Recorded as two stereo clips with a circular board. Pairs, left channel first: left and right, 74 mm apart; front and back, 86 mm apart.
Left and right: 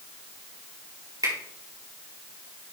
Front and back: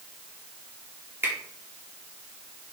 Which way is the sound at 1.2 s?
115° right.